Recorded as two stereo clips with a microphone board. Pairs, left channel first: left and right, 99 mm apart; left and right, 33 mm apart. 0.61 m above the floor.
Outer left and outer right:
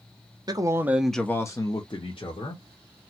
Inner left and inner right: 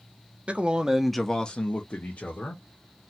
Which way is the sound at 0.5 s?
40° right (ahead or behind).